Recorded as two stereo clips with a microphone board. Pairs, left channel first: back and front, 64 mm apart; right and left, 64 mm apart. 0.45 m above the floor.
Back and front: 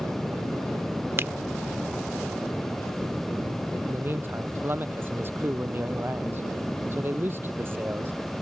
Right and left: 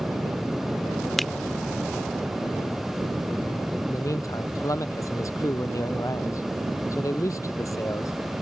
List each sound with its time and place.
1.2 s a finger snap: straight ahead
3.9 s a man speaking: 55° right